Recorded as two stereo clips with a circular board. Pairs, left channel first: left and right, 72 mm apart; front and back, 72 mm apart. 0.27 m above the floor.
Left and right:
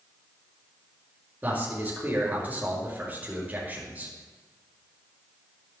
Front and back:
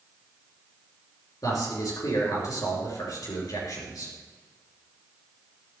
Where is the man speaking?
25° right, 4.5 m.